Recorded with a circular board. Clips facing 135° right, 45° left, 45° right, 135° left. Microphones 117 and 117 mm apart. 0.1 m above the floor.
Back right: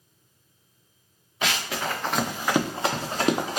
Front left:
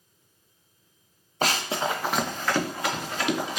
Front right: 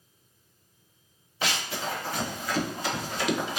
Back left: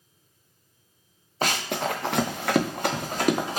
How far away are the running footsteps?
About 0.6 m.